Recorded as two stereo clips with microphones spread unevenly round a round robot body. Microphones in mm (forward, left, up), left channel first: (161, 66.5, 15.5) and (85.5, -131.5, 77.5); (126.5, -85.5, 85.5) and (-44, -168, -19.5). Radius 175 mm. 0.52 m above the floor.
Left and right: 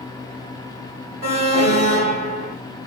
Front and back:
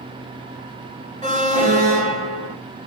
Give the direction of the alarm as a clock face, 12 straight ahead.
6 o'clock.